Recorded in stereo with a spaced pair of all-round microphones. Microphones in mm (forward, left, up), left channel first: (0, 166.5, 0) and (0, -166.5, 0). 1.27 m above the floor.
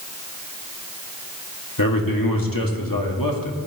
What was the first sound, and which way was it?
A man speaking, 80° left.